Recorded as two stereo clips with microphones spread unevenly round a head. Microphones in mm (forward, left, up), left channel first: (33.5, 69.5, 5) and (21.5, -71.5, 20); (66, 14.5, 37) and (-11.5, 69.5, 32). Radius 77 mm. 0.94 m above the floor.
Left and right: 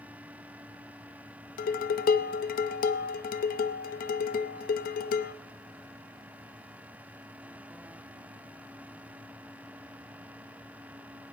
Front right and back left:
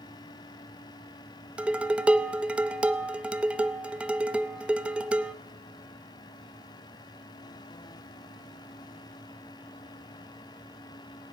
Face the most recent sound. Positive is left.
turn(degrees=65)